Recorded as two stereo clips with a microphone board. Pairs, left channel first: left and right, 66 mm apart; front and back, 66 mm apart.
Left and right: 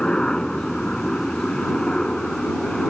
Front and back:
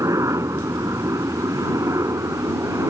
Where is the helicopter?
165° left.